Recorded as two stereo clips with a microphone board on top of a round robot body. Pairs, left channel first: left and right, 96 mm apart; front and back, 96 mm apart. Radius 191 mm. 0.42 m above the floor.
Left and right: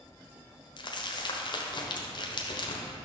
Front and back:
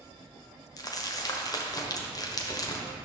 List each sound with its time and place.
0.8 s crumpling: 50° left, 1.2 m